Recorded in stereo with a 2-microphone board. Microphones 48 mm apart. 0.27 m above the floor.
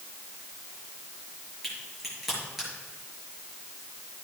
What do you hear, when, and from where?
1.6 s a crack: centre (ahead or behind), 5.5 m